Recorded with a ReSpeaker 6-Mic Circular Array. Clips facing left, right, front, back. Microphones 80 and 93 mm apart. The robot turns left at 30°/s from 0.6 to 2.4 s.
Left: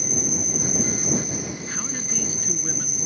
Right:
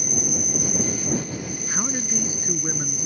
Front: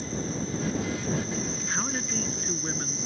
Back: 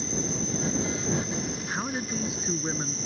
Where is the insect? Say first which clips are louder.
Even, even; 175° right; by 3.1 s 130° left.